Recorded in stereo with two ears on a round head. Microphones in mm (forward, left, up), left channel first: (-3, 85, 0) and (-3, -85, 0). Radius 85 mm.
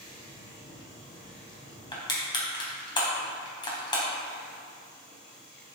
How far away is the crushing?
About 3 m.